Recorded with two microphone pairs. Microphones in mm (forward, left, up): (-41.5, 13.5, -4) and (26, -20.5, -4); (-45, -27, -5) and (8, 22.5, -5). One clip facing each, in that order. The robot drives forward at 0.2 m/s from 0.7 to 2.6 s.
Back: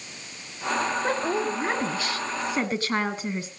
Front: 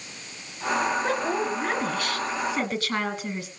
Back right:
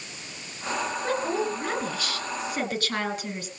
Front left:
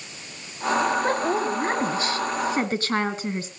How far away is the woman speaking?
About 1.9 m.